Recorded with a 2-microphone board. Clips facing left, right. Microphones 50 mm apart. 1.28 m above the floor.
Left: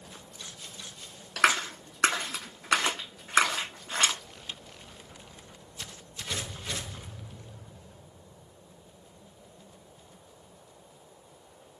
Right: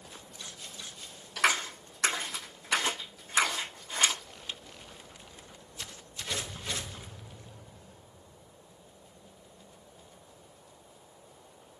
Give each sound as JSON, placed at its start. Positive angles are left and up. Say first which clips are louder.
{"t": 1.4, "sound": "a clap", "louder": "left 3 dB", "side_deg": 80, "distance_m": 1.2}